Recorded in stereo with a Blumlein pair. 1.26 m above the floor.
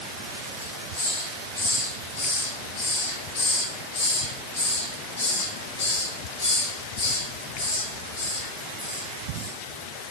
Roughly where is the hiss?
Ahead left.